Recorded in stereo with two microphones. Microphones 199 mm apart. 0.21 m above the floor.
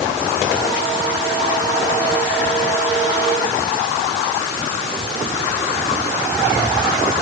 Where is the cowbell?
I don't hear a cowbell.